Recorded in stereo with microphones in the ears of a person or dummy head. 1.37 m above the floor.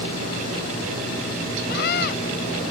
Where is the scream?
60° left (ahead or behind).